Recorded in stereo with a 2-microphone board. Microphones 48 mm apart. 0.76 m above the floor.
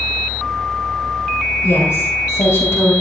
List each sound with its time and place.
1.6 s a woman speaking: 70° left (ahead or behind), 3 m